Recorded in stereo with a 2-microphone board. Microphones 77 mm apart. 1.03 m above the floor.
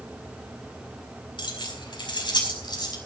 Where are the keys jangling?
85° left, 4 m; by 3.0 s 70° left (ahead or behind), 5 m.